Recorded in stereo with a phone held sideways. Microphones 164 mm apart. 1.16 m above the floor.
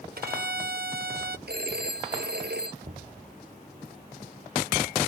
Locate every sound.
0.2 s a violin: 65° right (ahead or behind)
1.5 s a phone ringing: 80° right
2.8 s knocking: 50° right (ahead or behind)